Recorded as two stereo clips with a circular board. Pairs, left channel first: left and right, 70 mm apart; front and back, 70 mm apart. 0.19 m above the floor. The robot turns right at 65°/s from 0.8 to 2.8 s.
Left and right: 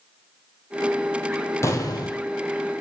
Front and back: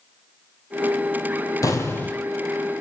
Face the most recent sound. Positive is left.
turn(degrees=115)